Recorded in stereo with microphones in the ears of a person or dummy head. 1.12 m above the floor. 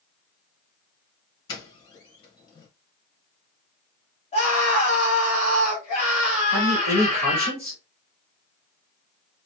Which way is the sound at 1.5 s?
25° left (ahead or behind).